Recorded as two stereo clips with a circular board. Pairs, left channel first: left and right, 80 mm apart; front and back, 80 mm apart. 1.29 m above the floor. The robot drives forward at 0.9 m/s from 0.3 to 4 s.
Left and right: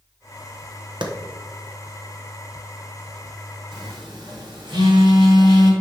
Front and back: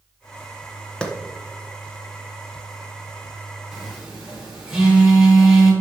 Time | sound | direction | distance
1.0 | a clap | 80° right | 1.0 m
3.7 | a phone buzzing | 100° right | 3.5 m